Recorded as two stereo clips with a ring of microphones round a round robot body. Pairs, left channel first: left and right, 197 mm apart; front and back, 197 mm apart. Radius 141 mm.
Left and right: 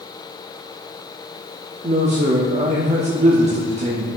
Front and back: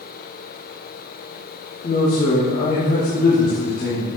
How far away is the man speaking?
About 0.9 m.